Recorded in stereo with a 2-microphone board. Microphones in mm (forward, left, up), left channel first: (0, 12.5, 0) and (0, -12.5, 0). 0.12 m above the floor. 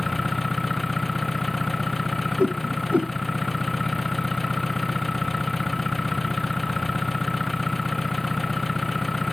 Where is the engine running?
5° left (ahead or behind).